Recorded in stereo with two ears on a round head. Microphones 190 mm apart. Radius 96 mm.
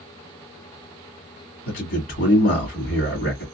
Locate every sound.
1.7 s a man speaking: 60° left (ahead or behind), 2 m